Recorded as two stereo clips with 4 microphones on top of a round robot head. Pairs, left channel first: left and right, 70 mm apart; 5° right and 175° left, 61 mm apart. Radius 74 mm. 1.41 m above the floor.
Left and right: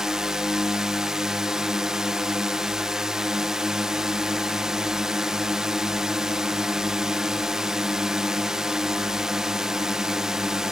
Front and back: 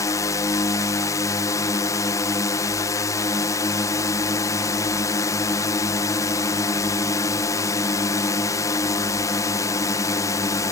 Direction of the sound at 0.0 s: 10° right.